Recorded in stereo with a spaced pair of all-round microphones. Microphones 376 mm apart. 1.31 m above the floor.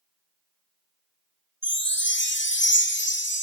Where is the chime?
30° left (ahead or behind), 1.2 m.